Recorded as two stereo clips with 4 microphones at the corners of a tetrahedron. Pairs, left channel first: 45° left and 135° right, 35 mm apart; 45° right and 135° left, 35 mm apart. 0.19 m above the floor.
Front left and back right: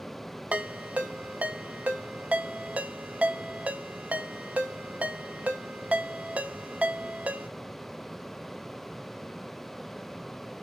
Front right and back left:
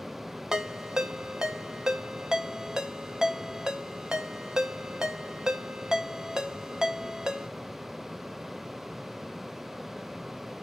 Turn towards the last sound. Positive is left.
turn(degrees=-155)